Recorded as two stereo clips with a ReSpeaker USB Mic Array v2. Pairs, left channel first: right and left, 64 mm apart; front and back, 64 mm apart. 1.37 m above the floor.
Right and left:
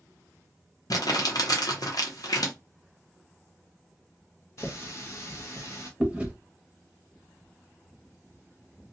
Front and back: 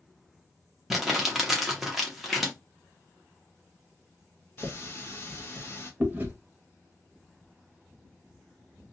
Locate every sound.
0.9 s crumpling: 95° right, 0.8 m
2.3 s a finger snap: 75° right, 1.3 m
4.6 s a running tap: 55° right, 0.9 m
6.0 s chewing: 150° left, 0.7 m